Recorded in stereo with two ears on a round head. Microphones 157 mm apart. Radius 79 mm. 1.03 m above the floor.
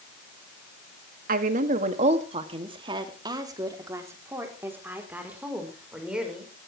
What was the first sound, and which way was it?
A woman speaking, 55° right (ahead or behind).